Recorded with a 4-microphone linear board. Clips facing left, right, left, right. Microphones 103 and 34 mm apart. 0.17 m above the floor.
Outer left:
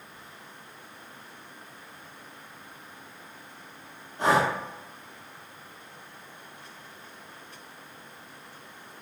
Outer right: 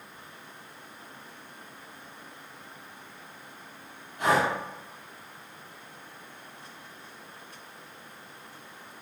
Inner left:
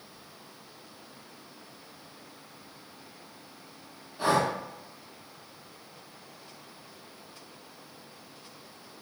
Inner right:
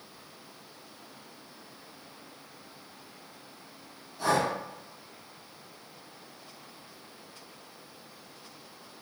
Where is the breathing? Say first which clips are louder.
Outer left 1 dB, inner left 1 dB; 35° left (ahead or behind), 0.6 m.